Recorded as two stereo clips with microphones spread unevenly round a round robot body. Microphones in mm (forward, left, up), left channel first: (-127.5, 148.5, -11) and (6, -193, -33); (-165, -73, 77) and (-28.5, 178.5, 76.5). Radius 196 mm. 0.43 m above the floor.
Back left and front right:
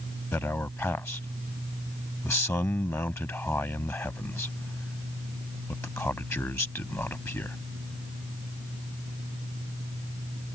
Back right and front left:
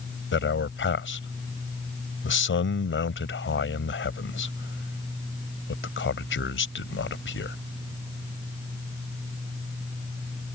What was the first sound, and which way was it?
A man speaking, 165° right.